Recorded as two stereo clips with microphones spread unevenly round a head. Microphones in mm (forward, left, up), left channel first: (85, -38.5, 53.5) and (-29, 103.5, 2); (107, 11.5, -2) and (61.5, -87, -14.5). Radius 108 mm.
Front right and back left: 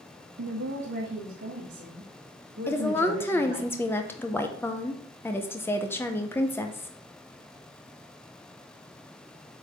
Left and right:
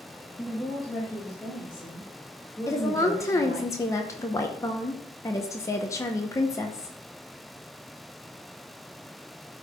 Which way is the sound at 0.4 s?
140° left.